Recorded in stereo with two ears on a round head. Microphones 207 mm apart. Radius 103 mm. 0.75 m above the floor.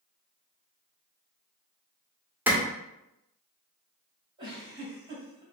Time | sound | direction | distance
2.5 | a clap | 10° right (ahead or behind) | 1.9 m
4.4 | a giggle | 20° right (ahead or behind) | 2.5 m